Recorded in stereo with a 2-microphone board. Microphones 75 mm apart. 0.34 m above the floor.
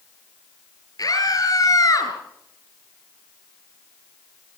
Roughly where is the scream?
Left.